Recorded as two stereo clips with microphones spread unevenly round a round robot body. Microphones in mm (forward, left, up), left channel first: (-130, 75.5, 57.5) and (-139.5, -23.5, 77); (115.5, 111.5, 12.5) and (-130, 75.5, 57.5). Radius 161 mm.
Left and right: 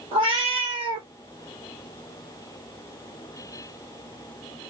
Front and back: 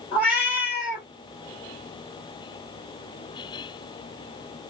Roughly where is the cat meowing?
Right.